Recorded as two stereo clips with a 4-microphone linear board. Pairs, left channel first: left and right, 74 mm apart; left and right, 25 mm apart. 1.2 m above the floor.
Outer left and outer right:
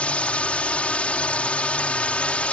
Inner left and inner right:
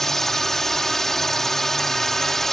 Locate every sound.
0.0 s a drone: 15° left (ahead or behind)